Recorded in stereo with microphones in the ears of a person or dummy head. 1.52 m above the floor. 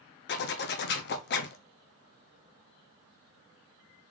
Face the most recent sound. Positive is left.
turn(degrees=55)  # may be behind; listen again after turning